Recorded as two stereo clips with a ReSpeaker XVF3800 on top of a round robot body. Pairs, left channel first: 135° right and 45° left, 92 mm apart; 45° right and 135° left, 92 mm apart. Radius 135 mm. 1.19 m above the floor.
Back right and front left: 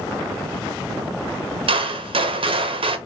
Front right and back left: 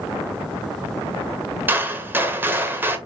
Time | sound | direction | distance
1.7 | a gunshot | 65° left | 1.0 m